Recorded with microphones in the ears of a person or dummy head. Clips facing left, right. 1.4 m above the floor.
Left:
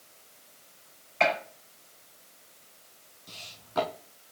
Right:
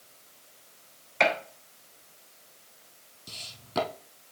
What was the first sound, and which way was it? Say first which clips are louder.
A gunshot: even; 75° right (ahead or behind).